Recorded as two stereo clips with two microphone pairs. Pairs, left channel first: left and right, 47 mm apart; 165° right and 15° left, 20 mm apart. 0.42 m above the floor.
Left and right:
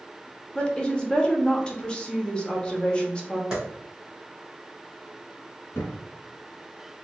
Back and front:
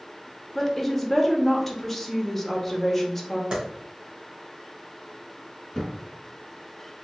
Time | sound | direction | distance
0.6 | a woman speaking | 125° left | 0.8 m
3.5 | a clap | 20° right | 1.8 m
5.7 | a thud | 120° left | 1.3 m